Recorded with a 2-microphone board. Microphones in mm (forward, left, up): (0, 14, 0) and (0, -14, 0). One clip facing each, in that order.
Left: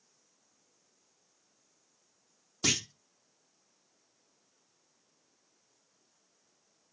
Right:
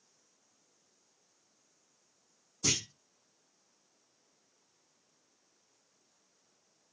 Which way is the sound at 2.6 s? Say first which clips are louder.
Left 3 dB; 55° left (ahead or behind).